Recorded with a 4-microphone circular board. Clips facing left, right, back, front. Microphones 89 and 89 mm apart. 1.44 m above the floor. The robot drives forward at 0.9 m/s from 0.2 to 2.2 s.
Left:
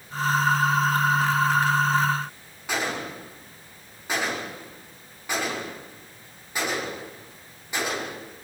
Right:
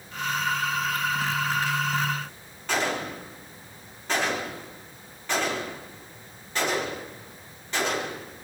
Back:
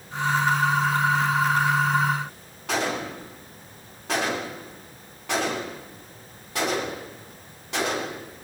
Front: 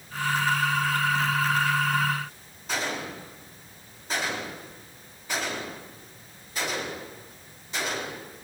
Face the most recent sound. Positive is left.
turn(degrees=170)